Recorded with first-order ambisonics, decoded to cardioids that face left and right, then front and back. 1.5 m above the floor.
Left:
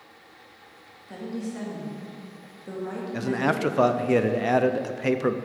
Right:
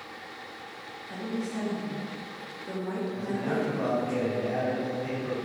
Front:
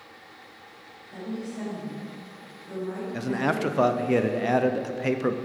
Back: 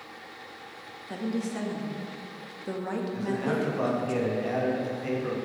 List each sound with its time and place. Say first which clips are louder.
1.1 s a woman speaking: even, back 3 dB; 175° left, 1.9 m
3.1 s a man speaking: left 8 dB, front 4 dB; 55° left, 0.6 m